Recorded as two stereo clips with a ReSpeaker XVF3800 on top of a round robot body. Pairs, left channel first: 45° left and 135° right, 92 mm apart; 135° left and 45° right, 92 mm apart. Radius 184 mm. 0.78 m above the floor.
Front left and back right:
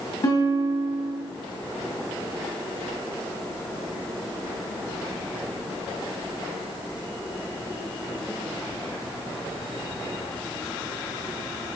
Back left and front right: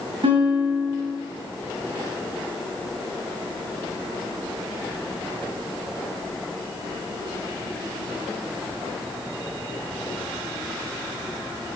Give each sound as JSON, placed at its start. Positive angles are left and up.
{"t": 0.2, "sound": "a guitar", "azimuth_deg": -10, "distance_m": 2.5}